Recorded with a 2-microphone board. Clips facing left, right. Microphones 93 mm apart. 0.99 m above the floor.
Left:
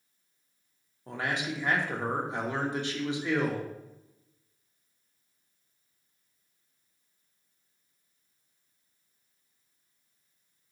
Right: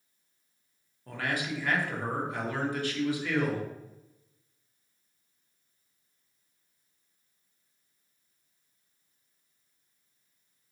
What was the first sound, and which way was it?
A man speaking, 20° left (ahead or behind).